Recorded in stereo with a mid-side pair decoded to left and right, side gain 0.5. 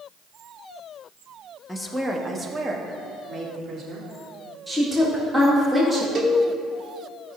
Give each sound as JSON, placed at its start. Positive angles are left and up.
{"t": 1.7, "sound": "a woman speaking", "azimuth_deg": 5, "distance_m": 1.4}
{"t": 4.7, "sound": "a woman speaking", "azimuth_deg": -20, "distance_m": 2.5}
{"t": 6.2, "sound": "a cowbell", "azimuth_deg": -45, "distance_m": 1.6}